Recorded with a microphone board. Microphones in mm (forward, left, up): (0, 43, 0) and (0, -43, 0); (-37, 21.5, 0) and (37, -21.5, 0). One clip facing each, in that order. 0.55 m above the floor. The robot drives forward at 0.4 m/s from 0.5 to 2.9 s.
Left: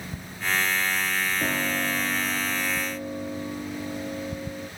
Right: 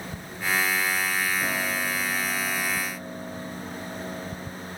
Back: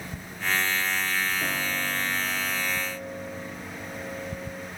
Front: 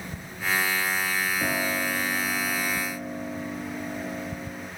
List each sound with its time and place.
1.4 s a piano: 20° left, 4 m; by 4.7 s 25° left, 3 m